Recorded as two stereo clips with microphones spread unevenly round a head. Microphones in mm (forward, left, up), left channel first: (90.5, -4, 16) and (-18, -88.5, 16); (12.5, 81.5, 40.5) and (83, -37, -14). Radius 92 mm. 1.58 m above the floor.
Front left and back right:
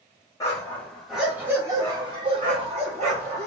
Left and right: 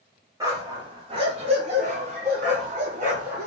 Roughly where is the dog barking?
Ahead left.